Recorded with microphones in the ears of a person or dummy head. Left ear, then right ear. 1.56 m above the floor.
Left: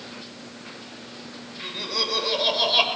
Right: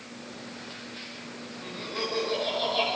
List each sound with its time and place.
1.6 s laughter: 40° left (ahead or behind), 6.5 m; by 2.9 s 50° left (ahead or behind), 6.5 m